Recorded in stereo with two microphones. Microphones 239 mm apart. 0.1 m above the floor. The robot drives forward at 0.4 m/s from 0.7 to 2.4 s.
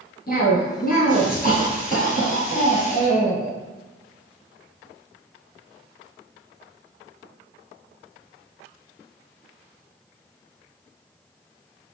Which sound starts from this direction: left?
A cough, at 0.3 s.